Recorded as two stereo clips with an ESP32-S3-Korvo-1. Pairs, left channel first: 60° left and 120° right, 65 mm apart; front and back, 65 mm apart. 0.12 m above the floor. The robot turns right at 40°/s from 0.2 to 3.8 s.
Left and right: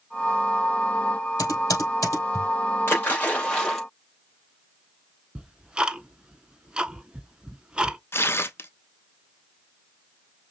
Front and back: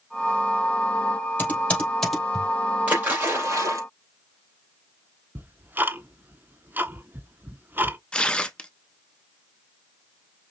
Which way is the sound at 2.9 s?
110° left.